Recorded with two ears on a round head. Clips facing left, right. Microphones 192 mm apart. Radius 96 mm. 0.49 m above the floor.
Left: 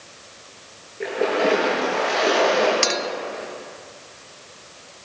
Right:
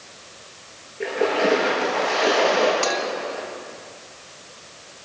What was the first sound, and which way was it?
A splash, centre (ahead or behind).